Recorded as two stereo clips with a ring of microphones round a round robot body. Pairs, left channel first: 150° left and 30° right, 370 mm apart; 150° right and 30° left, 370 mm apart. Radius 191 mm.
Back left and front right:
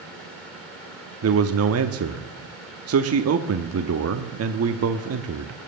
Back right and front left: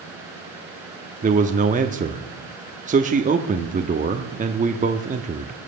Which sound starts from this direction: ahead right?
A man speaking, at 1.2 s.